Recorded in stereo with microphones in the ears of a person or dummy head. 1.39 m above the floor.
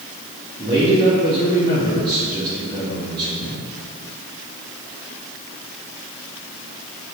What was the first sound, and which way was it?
A man speaking, 25° right (ahead or behind).